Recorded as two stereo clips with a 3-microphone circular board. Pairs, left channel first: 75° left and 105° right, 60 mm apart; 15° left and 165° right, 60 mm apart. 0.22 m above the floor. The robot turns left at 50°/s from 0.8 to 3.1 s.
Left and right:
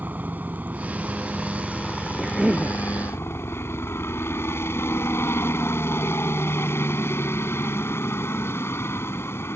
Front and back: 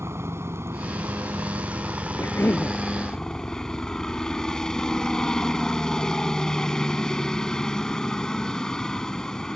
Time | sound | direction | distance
0.0 | a helicopter | 155° right | ?
2.2 | a cough | 20° right | ?